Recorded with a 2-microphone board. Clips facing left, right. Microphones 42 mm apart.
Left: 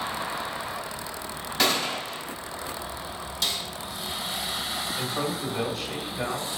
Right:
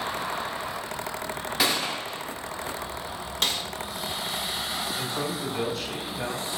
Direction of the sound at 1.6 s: 10° right (ahead or behind).